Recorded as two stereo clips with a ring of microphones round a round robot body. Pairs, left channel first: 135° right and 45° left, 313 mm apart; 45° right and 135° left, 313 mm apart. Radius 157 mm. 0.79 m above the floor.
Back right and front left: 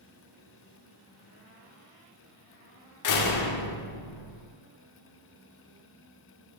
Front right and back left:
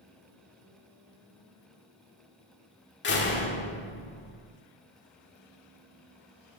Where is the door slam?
100° right, 1.4 m.